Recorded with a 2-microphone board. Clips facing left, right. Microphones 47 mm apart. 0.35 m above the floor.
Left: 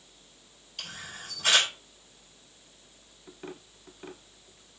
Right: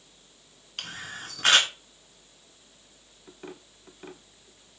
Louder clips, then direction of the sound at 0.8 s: Right 4 dB; 65° right (ahead or behind).